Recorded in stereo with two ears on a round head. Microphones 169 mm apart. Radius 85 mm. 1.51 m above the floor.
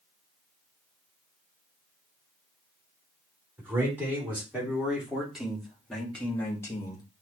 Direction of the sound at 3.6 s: 15° right (ahead or behind).